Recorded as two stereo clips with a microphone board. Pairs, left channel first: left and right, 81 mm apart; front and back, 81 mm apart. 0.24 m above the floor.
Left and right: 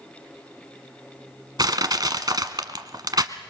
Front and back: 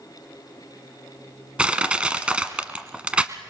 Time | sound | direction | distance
1.6 | crushing | 105° right | 1.2 m